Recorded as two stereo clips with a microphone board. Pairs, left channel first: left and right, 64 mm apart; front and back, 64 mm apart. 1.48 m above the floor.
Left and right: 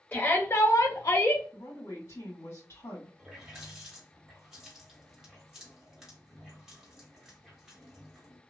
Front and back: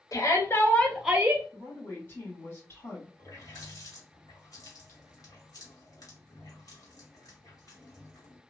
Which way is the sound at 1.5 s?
50° left.